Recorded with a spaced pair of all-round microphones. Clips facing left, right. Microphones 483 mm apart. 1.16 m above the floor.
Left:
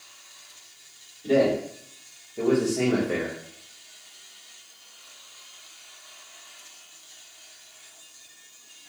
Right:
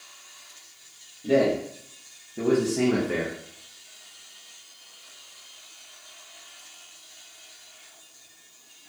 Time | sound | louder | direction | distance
1.2 | a man speaking | even | 45° right (ahead or behind) | 1.5 m